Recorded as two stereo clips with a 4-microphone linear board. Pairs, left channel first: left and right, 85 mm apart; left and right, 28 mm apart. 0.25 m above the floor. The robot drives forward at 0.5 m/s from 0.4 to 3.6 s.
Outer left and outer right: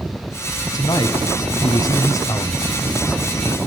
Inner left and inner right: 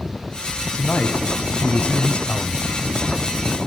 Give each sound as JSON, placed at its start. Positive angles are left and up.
{"t": 0.7, "sound": "a man speaking", "side_deg": 50, "distance_m": 1.6}